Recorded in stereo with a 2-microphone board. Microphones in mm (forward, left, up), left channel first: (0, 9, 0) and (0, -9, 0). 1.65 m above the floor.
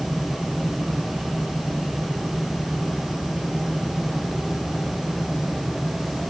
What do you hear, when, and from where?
Only background noise.